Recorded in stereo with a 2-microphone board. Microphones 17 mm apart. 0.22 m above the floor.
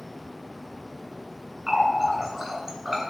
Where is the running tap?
25° right (ahead or behind), 1.2 m.